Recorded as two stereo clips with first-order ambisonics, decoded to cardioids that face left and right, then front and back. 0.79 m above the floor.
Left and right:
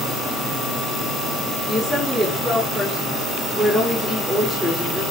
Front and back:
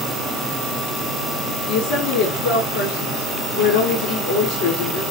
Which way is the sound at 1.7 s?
5° left.